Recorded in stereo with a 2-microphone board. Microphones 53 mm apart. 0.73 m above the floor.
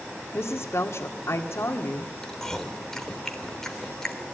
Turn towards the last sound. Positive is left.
turn(degrees=10)  # may be behind; listen again after turning